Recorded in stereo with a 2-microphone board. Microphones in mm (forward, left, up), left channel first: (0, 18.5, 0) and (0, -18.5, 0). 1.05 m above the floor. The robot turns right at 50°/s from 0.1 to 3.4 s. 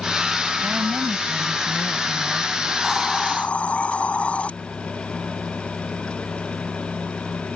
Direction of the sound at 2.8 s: 5° left (ahead or behind).